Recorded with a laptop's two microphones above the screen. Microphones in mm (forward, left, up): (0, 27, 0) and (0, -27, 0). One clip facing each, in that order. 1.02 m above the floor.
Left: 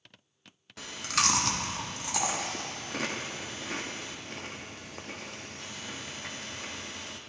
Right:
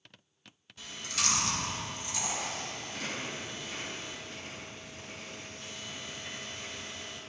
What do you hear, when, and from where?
0.8 s chewing: 70° left (ahead or behind), 0.8 m